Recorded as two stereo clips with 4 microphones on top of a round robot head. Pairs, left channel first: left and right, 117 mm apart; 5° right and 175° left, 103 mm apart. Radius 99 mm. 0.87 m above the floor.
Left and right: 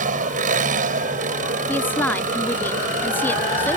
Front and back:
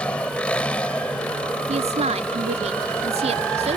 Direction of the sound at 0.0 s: 85° right.